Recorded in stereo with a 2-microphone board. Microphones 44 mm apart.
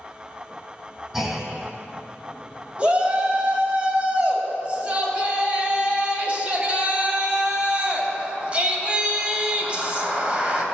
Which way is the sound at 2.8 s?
30° right (ahead or behind).